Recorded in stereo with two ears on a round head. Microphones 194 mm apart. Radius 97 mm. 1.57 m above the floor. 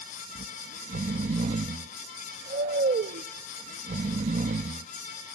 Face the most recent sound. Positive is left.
turn(degrees=-35)  # may be behind; listen again after turning